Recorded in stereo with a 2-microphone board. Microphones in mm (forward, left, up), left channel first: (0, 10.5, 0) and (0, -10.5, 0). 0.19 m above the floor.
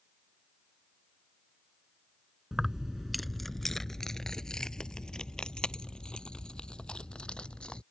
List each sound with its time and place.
2.5 s keys jangling: 25° right (ahead or behind); by 7.8 s 50° left (ahead or behind)